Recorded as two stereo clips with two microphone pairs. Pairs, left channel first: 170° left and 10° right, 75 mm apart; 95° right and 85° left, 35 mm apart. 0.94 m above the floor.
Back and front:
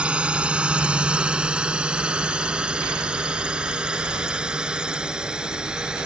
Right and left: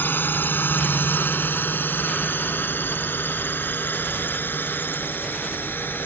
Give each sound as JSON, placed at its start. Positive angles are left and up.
{"t": 0.0, "sound": "a drone", "azimuth_deg": -85}